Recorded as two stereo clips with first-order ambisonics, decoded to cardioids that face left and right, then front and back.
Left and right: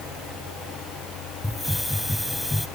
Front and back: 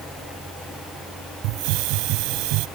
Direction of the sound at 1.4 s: 175° left.